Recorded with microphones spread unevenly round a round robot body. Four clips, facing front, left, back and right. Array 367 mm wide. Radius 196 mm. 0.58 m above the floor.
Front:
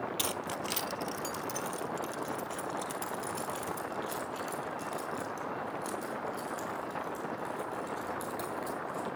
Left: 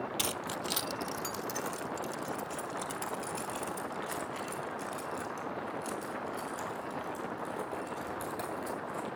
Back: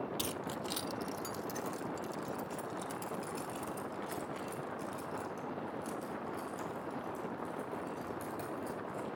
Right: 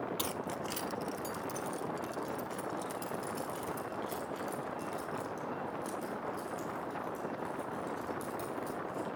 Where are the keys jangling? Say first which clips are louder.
Left 1 dB, front 3 dB; 75° left, 0.6 m; by 9.1 s 70° left, 9 m.